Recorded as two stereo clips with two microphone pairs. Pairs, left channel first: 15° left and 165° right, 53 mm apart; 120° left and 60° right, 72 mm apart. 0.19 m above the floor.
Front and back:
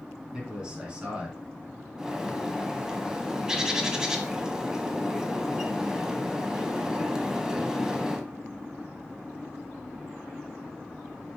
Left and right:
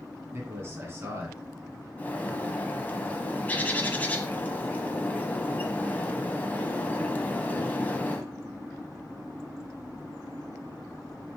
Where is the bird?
145° left, 0.9 m.